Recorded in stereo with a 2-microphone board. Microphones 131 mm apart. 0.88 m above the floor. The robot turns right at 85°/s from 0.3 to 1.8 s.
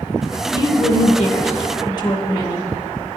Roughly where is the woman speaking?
Ahead left.